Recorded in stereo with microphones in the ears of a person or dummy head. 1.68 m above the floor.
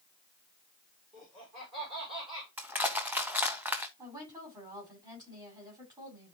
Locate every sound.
1.1 s laughter: 35° right (ahead or behind), 4.5 m; by 2.5 s 30° right (ahead or behind), 5.5 m
2.6 s crushing: 5° right (ahead or behind), 0.7 m
4.0 s a woman speaking: 25° right (ahead or behind), 6 m